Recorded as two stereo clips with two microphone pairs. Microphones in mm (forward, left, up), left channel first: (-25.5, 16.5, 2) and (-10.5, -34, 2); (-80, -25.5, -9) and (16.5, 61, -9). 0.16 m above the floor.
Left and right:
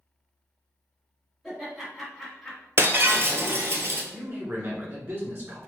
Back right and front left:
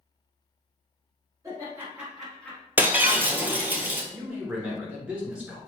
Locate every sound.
1.4 s laughter: 5° left, 1.8 m; by 2.7 s 175° right, 1.7 m
2.8 s breaking glass: 35° right, 0.6 m
4.1 s a man speaking: 35° right, 1.6 m